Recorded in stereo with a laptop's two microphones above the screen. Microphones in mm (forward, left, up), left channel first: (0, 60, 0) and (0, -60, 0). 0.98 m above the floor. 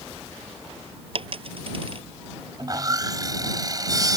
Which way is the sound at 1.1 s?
50° right (ahead or behind).